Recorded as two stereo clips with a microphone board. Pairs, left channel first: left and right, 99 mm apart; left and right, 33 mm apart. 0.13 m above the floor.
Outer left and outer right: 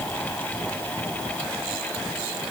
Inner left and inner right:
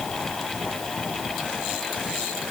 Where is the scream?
I don't hear a scream.